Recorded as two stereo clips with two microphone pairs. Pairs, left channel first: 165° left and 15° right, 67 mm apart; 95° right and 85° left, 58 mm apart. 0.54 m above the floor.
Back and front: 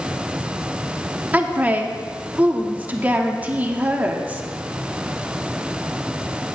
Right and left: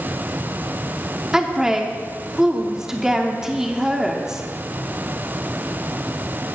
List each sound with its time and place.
1.3 s a woman speaking: 10° left, 0.9 m